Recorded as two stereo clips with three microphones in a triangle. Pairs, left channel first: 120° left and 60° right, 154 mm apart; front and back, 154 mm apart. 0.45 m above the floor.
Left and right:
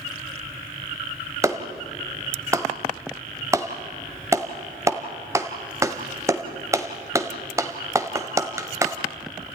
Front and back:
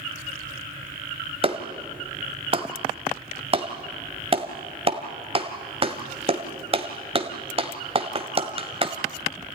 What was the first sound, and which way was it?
A clap, 130° right.